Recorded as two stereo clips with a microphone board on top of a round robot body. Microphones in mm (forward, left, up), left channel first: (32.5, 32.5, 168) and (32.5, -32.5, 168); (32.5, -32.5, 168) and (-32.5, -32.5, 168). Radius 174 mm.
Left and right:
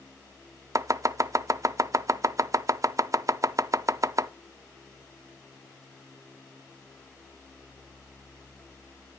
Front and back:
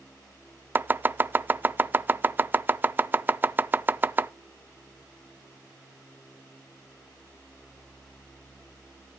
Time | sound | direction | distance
0.8 | chopping | 120° right | 0.5 m